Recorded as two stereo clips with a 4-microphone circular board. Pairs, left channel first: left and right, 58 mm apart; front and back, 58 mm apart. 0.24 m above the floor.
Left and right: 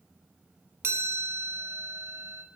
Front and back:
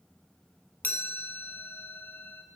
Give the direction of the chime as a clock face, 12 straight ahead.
2 o'clock.